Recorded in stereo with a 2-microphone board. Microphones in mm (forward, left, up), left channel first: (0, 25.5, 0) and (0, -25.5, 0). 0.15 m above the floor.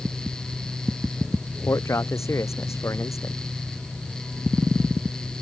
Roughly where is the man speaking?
Left.